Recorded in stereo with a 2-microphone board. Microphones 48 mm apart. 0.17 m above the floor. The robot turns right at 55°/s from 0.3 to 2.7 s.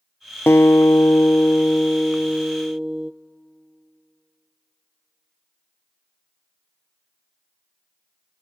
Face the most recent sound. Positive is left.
turn(degrees=-160)